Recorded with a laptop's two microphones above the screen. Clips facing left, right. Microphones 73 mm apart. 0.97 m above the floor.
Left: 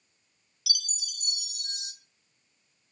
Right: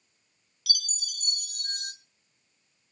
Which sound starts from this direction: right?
A chime, at 0.7 s.